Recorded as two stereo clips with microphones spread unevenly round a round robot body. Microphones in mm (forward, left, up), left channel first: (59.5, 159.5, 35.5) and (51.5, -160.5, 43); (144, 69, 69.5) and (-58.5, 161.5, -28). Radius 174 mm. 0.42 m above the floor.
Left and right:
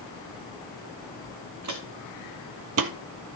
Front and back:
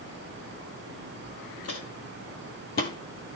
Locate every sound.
1.6 s footsteps: 55° right, 2 m; by 2.9 s 50° right, 0.5 m